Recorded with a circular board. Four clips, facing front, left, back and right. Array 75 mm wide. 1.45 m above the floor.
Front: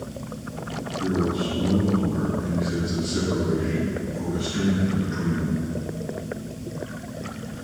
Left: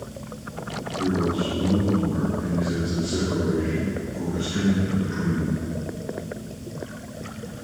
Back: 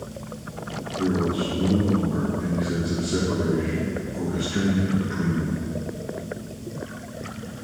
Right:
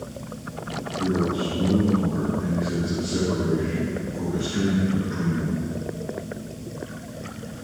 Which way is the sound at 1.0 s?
170° left.